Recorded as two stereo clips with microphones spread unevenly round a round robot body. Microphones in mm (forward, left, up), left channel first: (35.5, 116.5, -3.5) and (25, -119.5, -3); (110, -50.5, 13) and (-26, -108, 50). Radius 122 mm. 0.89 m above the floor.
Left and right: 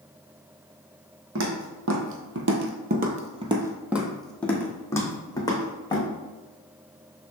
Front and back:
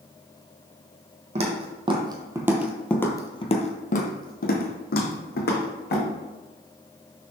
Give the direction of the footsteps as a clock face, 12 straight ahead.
4 o'clock.